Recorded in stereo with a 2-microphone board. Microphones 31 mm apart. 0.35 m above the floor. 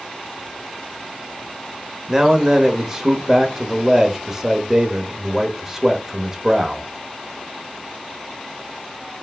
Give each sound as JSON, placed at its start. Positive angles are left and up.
{"t": 2.1, "sound": "a man speaking", "side_deg": -20, "distance_m": 0.9}